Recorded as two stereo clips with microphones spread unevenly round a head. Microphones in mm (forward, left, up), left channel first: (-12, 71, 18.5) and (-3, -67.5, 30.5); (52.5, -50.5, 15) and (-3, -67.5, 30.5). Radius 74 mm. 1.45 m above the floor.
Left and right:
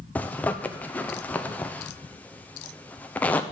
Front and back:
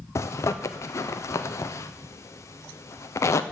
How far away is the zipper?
About 0.6 m.